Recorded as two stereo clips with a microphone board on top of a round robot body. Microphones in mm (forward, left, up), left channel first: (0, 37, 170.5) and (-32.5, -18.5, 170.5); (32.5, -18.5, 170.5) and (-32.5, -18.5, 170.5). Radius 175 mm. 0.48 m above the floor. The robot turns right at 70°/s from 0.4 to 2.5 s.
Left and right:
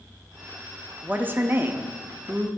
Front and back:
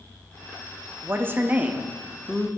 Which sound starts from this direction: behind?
A woman speaking, at 1.0 s.